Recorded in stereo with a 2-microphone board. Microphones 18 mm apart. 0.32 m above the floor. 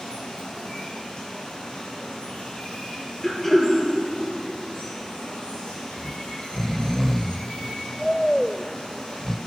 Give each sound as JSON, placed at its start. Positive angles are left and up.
{"t": 0.0, "sound": "running water", "side_deg": 80, "distance_m": 7.0}
{"t": 3.2, "sound": "throat clearing", "side_deg": 25, "distance_m": 4.0}
{"t": 6.0, "sound": "snoring", "side_deg": 20, "distance_m": 0.5}